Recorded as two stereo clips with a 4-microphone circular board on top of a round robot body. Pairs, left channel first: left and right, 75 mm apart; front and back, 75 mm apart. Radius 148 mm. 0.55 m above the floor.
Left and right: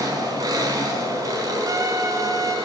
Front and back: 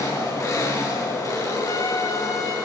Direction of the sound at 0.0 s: 50° right.